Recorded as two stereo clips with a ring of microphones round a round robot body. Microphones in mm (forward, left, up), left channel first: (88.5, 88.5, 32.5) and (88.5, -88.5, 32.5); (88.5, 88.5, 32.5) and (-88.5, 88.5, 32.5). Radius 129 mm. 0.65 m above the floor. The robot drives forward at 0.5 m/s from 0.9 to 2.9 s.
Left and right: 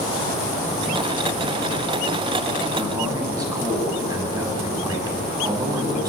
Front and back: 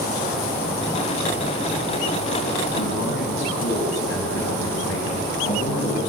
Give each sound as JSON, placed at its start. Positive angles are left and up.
{"t": 2.8, "sound": "a man speaking", "azimuth_deg": -20, "distance_m": 6.5}